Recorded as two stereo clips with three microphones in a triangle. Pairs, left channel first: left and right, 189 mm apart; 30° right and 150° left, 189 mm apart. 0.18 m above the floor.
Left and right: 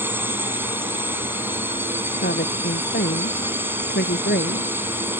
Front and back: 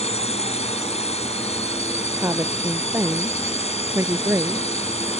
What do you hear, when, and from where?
0.0 s a drone: 20° right
2.2 s a woman speaking: 75° left